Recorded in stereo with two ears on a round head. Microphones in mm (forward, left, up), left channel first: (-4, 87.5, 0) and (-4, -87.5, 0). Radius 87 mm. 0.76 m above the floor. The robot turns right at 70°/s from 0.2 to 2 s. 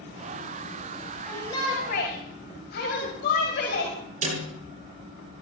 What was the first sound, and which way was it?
A shout, 5° left.